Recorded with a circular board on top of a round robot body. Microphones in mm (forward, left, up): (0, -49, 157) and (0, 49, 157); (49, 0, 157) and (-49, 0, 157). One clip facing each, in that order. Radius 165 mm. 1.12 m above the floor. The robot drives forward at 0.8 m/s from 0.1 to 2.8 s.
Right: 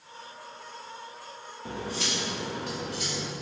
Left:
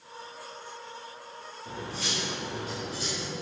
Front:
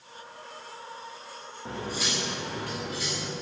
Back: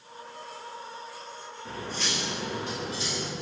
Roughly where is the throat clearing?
I don't hear throat clearing.